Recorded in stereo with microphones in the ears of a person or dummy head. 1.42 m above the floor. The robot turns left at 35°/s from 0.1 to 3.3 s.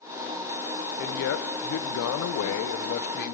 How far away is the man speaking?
About 0.6 m.